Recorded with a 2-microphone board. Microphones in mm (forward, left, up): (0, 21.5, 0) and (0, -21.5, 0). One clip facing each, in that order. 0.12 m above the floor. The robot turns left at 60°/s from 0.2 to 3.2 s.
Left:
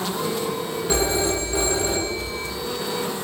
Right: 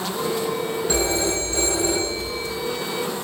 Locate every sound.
0.9 s a phone ringing: 5° left (ahead or behind), 1.1 m; by 2.5 s 25° left (ahead or behind), 1.1 m